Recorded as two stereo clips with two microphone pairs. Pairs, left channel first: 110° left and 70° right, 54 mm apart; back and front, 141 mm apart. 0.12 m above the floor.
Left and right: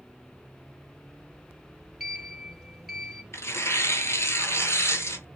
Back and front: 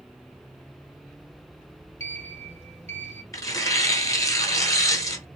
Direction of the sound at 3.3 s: 120° left.